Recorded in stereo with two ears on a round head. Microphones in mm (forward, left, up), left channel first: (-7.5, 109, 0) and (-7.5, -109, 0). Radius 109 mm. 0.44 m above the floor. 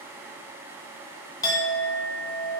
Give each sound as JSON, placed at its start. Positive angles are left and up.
{"t": 1.4, "sound": "a clink", "side_deg": 15, "distance_m": 0.7}